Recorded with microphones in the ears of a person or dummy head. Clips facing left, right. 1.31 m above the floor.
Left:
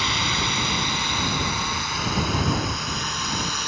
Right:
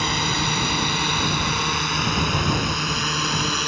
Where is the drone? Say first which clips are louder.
Right 3 dB; 40° right (ahead or behind); by 3.7 s 60° right (ahead or behind).